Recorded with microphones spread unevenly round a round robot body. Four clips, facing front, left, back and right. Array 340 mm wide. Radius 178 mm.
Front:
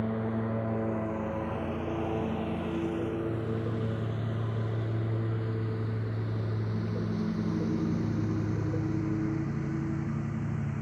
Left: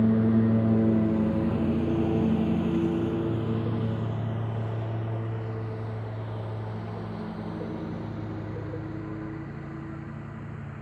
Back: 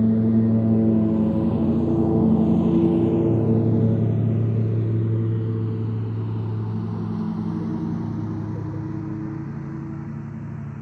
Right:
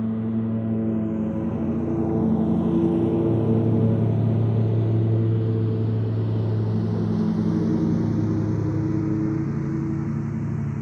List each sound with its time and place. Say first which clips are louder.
0.0 s a lawn mower: left 3 dB, back 13 dB; 170° left; by 10.8 s 95° right